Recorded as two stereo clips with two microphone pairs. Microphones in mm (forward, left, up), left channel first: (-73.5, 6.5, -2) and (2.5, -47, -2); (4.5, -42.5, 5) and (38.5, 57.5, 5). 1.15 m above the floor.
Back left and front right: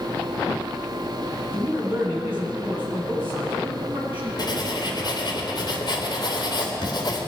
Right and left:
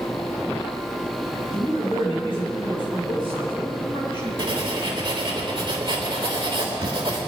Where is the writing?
105° left, 3 m.